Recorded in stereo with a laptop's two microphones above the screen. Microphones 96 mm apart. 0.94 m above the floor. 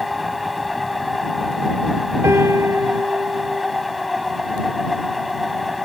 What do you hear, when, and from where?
0.0 s a machine running: centre (ahead or behind)
2.2 s a piano: 30° right (ahead or behind)